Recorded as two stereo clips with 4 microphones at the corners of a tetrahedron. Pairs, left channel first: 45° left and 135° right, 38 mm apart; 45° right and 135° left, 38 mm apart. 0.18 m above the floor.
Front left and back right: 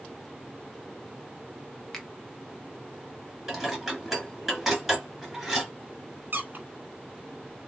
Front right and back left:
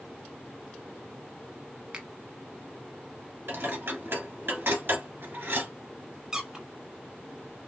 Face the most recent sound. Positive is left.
turn(degrees=-155)